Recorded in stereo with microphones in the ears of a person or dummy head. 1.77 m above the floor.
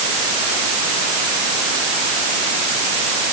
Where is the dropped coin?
No dropped coin in this recording.